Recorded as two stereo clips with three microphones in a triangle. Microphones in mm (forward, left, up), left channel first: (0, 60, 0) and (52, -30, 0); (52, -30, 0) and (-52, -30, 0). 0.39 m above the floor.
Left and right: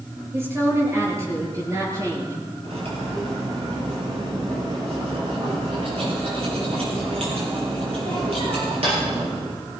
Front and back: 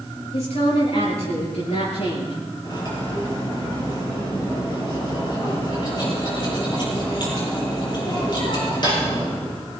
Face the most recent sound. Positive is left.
turn(degrees=-40)